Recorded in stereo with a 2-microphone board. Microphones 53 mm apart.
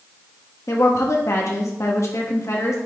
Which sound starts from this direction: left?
A woman speaking, at 0.7 s.